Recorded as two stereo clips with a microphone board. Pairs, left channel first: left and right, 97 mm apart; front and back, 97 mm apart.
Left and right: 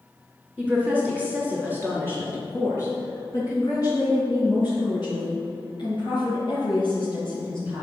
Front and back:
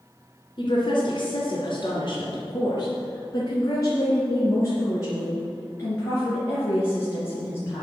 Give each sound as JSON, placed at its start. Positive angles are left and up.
{"t": 0.6, "sound": "a woman speaking", "azimuth_deg": 10, "distance_m": 2.0}